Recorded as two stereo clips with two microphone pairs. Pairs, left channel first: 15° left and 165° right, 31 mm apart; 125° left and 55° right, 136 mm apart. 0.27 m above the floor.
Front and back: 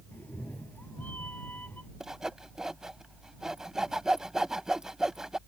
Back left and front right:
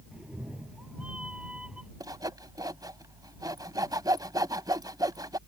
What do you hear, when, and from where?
0.1 s a cat meowing: 30° left
2.0 s sawing: 100° right